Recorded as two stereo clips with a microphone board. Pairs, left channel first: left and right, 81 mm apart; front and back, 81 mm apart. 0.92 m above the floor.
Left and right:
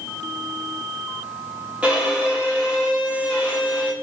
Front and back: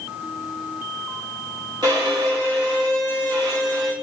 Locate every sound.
1.8 s a violin: 160° right, 1.7 m